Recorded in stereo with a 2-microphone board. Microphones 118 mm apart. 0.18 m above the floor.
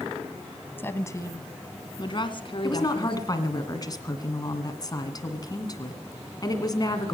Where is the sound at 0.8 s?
20° left (ahead or behind), 1.0 m; by 3.2 s 50° left (ahead or behind), 1.8 m.